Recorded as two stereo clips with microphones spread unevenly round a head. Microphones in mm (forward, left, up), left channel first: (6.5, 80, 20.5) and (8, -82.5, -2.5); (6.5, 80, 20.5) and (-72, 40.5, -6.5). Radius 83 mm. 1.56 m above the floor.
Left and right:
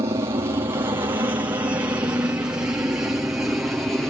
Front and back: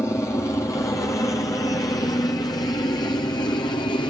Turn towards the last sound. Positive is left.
turn(degrees=-10)